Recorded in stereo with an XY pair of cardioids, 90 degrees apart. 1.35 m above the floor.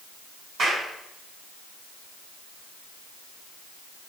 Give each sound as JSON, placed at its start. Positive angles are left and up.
{"t": 0.6, "sound": "a clap", "azimuth_deg": -65, "distance_m": 8.5}